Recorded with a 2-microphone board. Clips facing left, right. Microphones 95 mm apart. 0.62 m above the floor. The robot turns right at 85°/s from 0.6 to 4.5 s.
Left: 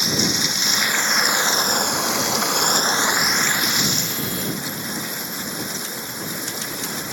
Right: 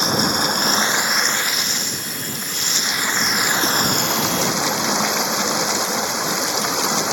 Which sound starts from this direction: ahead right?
Running water, at 0.0 s.